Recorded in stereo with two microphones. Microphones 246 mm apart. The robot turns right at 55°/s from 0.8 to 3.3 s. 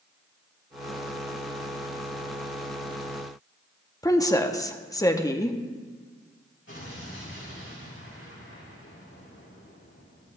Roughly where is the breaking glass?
I don't hear breaking glass.